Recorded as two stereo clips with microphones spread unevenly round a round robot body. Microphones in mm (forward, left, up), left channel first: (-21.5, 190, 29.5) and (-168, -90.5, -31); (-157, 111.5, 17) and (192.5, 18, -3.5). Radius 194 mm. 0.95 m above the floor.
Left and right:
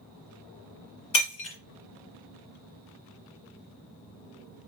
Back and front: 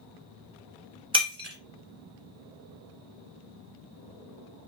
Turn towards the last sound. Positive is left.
turn(degrees=60)